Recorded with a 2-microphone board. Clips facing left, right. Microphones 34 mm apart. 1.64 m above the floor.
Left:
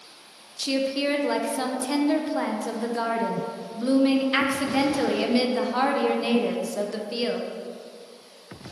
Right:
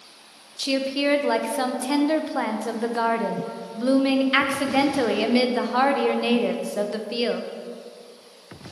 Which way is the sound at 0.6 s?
20° right (ahead or behind).